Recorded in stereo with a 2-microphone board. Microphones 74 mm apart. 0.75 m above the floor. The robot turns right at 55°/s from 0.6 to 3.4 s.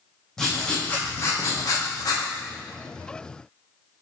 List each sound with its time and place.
0.4 s writing: 10° left, 0.7 m; by 2.2 s 100° left, 0.7 m